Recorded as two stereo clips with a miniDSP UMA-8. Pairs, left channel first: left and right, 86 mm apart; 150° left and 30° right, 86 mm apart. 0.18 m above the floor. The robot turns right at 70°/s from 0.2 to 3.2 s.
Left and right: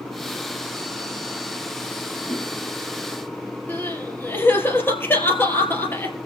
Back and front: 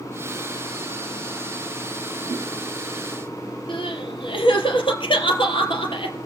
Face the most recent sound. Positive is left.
turn(degrees=155)